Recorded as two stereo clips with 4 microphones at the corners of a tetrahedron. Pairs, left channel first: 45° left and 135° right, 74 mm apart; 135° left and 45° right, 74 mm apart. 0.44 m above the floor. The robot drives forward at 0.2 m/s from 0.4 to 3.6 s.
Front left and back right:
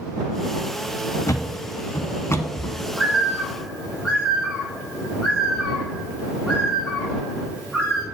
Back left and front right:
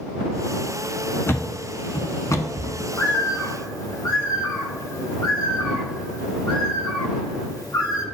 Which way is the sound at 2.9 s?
145° left.